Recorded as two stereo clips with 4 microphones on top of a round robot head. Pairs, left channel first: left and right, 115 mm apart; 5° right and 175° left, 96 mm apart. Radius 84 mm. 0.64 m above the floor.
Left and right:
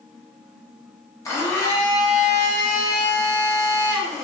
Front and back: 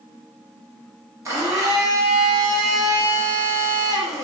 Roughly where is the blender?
Behind left.